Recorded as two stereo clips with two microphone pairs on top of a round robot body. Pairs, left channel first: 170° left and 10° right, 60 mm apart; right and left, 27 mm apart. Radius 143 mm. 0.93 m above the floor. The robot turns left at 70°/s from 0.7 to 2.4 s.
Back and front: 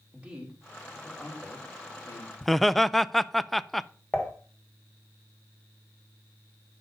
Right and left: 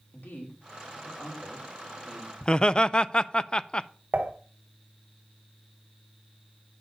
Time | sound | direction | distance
0.1 | a man speaking | 80° right | 3.5 m
2.4 | laughter | 110° right | 0.6 m
4.1 | dishes clattering | 95° left | 1.4 m